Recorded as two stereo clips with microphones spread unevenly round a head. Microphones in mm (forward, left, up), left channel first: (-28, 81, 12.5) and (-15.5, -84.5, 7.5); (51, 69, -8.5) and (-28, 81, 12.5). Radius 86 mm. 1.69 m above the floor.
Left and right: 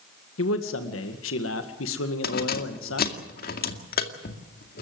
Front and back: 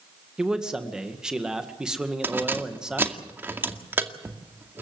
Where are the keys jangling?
120° left, 2 m.